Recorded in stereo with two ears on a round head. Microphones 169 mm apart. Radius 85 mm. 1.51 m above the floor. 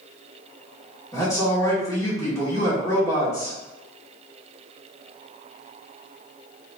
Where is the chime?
No chime in this recording.